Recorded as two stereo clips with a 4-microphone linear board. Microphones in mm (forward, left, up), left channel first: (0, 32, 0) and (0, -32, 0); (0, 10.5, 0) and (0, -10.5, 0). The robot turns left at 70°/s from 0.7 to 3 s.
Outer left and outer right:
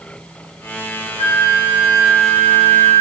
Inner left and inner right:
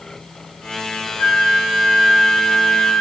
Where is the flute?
95° left, 2.5 m; by 3.0 s 30° right, 2.5 m.